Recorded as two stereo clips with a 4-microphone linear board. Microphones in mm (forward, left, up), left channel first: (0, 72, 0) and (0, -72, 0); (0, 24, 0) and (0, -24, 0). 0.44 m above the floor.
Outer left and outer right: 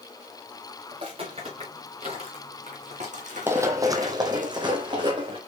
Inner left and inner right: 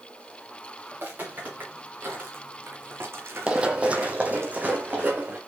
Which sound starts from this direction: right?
Footsteps, at 0.9 s.